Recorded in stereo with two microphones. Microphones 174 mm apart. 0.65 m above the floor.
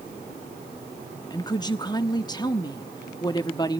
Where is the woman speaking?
25° left (ahead or behind), 1.0 m.